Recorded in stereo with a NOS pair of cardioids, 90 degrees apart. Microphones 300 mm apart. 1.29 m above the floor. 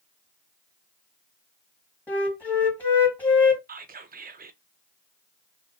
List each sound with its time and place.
2.1 s a flute: 5° left, 1.3 m
3.7 s whispering: 30° right, 0.6 m